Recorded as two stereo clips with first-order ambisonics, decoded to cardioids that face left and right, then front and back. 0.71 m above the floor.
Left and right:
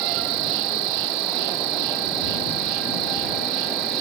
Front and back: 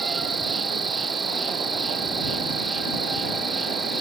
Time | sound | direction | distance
0.0 | an insect | 105° right | ?